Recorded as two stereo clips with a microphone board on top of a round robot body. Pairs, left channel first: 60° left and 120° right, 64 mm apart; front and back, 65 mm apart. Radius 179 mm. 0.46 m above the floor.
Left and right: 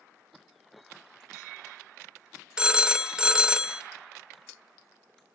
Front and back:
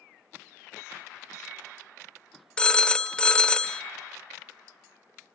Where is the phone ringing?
60° right, 0.7 m.